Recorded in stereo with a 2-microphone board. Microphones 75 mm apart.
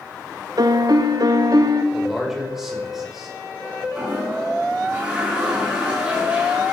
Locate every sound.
0.6 s a piano: 60° right (ahead or behind), 0.9 m
1.9 s a man speaking: 5° right (ahead or behind), 5 m
4.0 s a toilet flushing: 15° right (ahead or behind), 7.5 m